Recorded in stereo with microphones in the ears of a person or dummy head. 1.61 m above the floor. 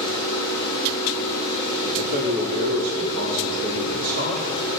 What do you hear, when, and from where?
0.0 s a fan: 20° left (ahead or behind), 6.5 m
1.8 s a man speaking: 55° right (ahead or behind), 4.5 m